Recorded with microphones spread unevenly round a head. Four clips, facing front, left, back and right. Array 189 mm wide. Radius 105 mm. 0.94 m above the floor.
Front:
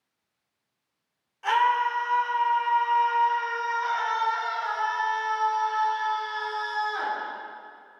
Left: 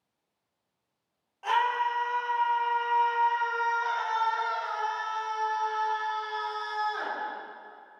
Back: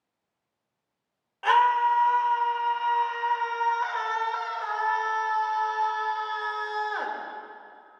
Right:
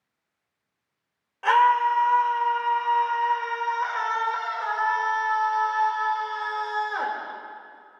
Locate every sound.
1.4 s a scream: 115° right, 5 m